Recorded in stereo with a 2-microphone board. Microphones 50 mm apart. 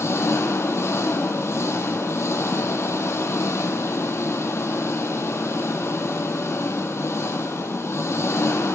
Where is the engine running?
65° left (ahead or behind), 1.0 m.